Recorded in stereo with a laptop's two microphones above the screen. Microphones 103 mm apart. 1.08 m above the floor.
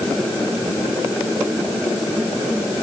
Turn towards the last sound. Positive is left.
No sound to turn to.